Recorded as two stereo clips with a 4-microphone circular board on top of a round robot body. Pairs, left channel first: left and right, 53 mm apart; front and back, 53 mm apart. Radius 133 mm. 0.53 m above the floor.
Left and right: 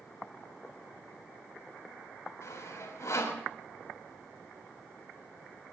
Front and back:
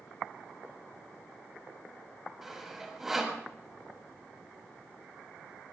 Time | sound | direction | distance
2.4 | sawing | 100° left | 3.5 m